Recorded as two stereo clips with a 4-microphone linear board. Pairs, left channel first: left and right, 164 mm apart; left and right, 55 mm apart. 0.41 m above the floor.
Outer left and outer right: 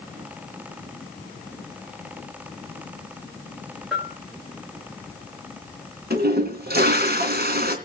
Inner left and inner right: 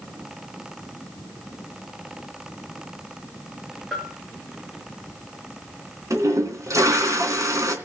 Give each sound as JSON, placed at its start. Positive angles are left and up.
{"t": 3.9, "sound": "a bell", "side_deg": 0, "distance_m": 2.0}
{"t": 6.1, "sound": "a toilet flushing", "side_deg": -75, "distance_m": 3.0}